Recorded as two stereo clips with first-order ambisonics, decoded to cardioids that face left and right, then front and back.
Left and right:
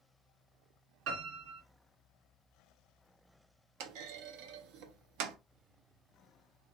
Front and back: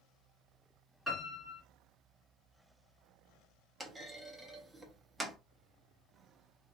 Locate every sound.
1.1 s a piano: 85° right, 3 m
3.8 s a clunk: 95° right, 0.7 m